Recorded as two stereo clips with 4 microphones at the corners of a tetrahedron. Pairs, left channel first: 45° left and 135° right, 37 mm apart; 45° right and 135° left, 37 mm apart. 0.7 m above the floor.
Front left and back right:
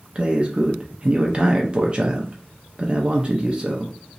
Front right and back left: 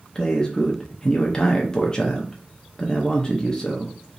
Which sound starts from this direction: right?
A man speaking, at 0.1 s.